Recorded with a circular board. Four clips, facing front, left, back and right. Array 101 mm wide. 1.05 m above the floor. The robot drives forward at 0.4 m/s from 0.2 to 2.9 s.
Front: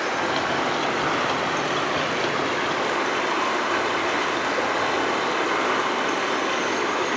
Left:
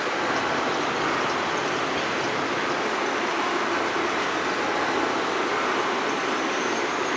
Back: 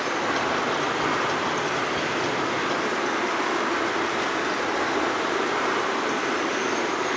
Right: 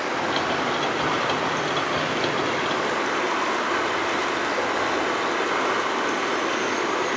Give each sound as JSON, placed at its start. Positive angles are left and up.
{"t": 0.0, "sound": "running water", "azimuth_deg": -15, "distance_m": 2.0}